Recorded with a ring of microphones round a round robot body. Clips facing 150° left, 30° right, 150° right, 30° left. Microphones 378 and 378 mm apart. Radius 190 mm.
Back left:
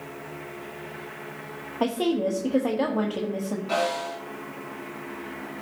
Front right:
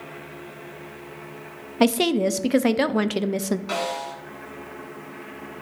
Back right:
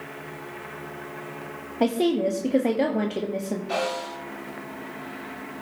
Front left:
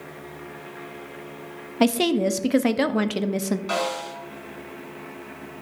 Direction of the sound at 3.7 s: 20° left.